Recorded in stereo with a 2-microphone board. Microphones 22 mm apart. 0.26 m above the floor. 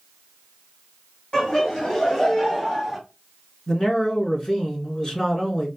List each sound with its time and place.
1.3 s laughter: 40° left (ahead or behind), 1.9 m; by 3.0 s 5° right (ahead or behind), 1.6 m
3.7 s a man speaking: 30° left (ahead or behind), 1.8 m